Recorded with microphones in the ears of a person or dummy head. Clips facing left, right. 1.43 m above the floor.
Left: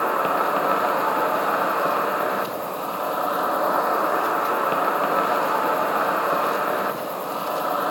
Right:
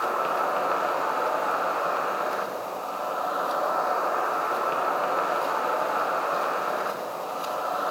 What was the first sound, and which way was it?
An insect, 60° left (ahead or behind).